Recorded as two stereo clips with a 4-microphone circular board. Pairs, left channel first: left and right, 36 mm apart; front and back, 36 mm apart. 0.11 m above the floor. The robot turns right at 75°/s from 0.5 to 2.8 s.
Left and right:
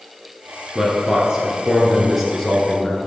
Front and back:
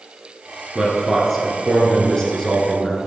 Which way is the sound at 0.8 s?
130° right.